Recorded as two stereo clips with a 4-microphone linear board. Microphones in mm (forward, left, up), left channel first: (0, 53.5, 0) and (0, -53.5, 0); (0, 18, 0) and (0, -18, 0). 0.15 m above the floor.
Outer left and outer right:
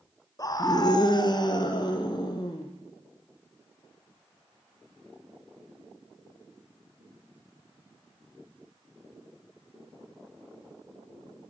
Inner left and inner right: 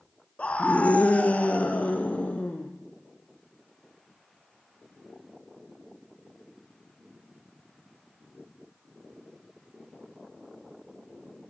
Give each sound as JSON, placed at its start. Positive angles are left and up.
{"t": 0.4, "sound": "a scream", "side_deg": 35, "distance_m": 1.4}